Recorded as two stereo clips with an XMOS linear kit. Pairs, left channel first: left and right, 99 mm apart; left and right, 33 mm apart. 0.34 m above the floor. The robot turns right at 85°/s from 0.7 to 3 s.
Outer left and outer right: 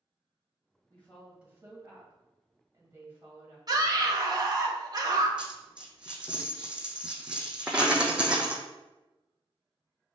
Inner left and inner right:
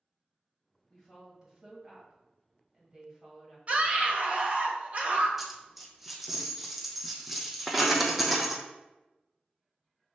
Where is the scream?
40° right (ahead or behind), 1.1 m.